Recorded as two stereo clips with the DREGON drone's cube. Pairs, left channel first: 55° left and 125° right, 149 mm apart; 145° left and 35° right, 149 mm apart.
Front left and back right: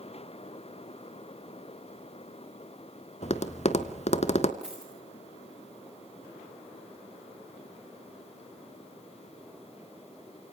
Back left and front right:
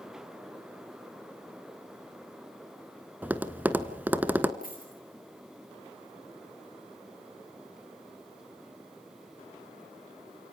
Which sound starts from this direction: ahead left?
Tapping, at 3.2 s.